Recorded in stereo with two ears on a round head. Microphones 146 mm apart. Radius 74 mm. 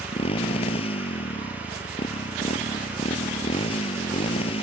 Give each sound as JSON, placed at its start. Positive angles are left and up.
{"t": 0.0, "sound": "a motorcycle", "side_deg": 35}